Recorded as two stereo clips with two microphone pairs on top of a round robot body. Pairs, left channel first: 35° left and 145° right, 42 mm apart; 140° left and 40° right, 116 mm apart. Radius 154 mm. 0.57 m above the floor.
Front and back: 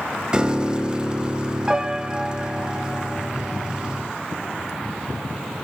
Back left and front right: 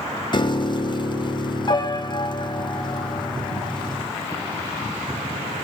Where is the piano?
145° left, 0.7 m.